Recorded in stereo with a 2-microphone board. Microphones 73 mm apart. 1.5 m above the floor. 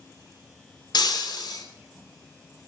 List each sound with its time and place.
0.9 s breaking glass: 70° left (ahead or behind), 2 m